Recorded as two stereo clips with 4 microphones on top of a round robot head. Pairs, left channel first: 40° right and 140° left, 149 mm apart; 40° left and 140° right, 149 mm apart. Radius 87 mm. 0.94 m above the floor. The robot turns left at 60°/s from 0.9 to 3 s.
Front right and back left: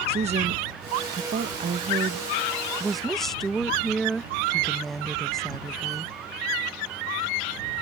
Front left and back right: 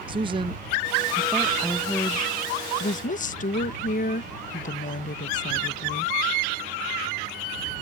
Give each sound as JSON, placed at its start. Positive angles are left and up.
{"t": 0.1, "sound": "a woman speaking", "azimuth_deg": 170}